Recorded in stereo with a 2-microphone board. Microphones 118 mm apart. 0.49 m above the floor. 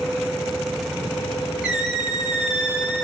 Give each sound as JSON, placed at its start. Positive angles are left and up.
{"t": 1.6, "sound": "a squeak", "side_deg": -5, "distance_m": 1.4}